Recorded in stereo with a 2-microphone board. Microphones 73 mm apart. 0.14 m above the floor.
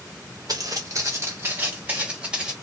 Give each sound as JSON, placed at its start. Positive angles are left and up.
{"t": 0.5, "sound": "footsteps", "side_deg": -60, "distance_m": 0.9}